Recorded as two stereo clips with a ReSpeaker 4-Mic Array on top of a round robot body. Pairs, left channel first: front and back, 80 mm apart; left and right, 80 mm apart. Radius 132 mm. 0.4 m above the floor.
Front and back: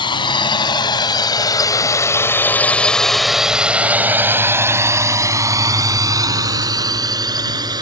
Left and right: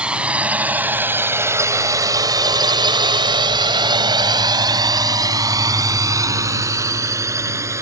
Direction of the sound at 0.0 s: 15° right.